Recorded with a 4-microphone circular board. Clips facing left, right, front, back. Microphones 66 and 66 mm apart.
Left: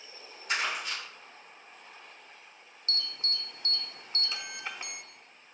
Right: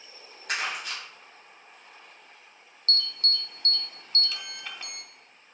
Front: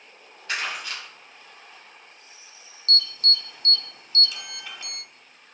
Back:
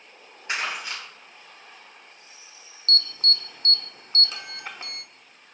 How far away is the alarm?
About 0.7 m.